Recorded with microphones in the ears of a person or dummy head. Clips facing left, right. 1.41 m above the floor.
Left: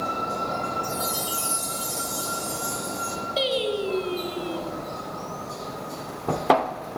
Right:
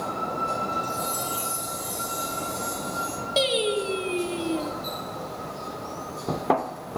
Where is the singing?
75° right (ahead or behind), 1.6 m.